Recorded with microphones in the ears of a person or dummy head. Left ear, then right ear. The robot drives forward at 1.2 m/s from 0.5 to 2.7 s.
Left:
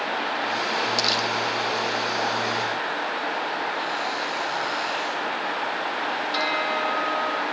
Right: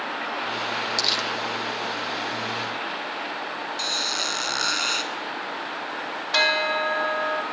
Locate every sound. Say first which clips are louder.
1.0 s crumpling: right 1 dB; centre (ahead or behind), 1.7 m
3.8 s a squeak: right 1 dB; 60° right (ahead or behind), 2.5 m
6.3 s a bell: right 6 dB; 30° right (ahead or behind), 2.0 m